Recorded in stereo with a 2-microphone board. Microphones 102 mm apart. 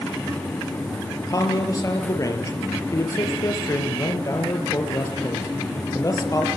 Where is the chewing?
I don't hear chewing.